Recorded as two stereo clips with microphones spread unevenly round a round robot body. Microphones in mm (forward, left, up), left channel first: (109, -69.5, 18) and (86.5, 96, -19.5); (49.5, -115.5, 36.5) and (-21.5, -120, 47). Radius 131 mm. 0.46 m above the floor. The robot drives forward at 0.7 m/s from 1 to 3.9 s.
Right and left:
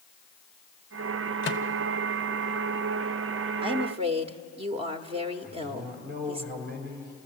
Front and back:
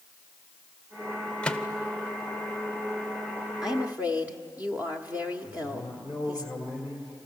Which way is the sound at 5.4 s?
100° left.